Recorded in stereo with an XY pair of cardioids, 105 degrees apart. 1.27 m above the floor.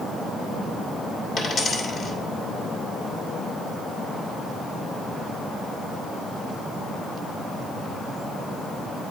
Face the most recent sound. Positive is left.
turn(degrees=60)